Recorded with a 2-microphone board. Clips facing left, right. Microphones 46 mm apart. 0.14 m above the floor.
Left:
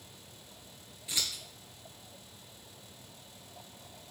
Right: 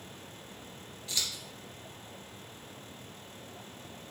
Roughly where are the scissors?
Left.